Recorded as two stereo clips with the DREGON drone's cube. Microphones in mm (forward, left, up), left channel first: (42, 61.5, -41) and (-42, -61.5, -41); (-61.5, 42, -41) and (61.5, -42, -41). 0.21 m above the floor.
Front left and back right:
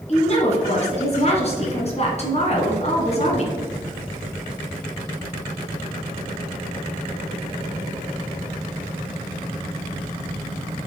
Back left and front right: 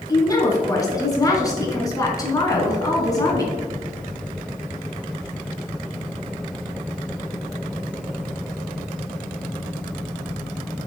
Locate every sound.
0.1 s a woman speaking: 85° left, 2.5 m